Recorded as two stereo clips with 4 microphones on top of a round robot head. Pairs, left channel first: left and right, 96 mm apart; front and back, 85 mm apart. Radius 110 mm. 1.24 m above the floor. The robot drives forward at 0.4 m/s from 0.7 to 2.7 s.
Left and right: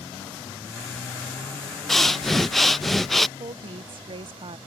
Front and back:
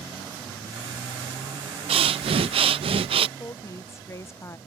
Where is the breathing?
175° left; by 3.3 s straight behind.